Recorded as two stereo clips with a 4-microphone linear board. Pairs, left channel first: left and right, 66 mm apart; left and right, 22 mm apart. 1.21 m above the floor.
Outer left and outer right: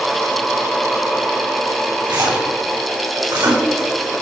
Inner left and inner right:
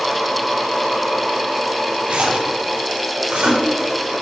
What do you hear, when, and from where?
2.0 s a splash: 85° right, 2.5 m